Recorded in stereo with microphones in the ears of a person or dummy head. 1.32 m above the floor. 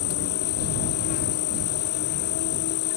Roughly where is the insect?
Left.